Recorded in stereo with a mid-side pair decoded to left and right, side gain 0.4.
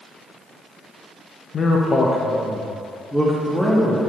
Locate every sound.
1.5 s a man speaking: 50° left, 0.8 m; by 4.1 s straight ahead, 2 m